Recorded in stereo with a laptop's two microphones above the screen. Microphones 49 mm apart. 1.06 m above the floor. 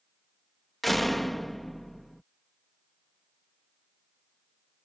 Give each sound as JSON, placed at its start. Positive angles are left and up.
{"t": 0.8, "sound": "a door slam", "side_deg": 5}